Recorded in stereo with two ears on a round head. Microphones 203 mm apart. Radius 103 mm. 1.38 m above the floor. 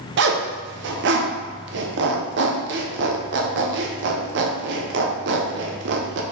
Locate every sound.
0.2 s a zipper: 50° right (ahead or behind), 0.6 m